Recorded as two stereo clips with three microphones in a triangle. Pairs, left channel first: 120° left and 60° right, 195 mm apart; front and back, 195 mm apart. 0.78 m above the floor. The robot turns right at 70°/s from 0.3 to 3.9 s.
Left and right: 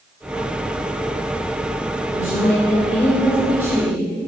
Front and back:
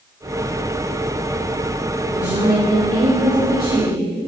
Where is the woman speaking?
115° left, 2.5 m; by 4.0 s 120° right, 2.5 m.